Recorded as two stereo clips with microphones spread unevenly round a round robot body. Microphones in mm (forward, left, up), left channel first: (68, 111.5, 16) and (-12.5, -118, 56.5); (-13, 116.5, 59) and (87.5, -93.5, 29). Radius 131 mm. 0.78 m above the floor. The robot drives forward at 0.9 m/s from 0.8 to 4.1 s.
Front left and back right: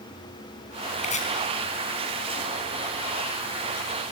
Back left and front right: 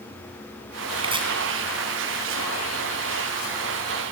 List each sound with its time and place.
1.0 s chopping: 5° left, 3.5 m